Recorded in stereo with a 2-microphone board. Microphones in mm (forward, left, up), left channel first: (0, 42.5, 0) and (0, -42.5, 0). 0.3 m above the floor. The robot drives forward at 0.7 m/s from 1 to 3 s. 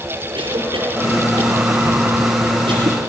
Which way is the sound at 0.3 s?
80° right.